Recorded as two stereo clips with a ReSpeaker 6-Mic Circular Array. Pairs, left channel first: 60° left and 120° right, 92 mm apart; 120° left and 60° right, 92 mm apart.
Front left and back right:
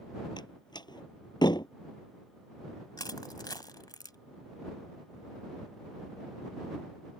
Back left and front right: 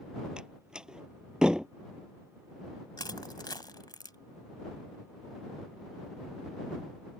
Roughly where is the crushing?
Left.